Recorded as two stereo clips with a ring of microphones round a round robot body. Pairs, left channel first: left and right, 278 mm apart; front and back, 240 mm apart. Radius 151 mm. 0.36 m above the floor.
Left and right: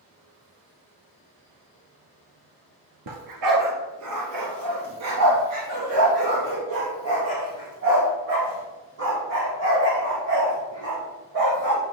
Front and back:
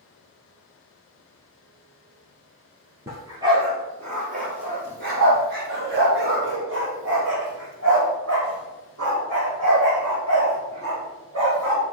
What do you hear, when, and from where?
3.1 s a dog barking: 100° right, 1.8 m; by 11.8 s 145° right, 5.5 m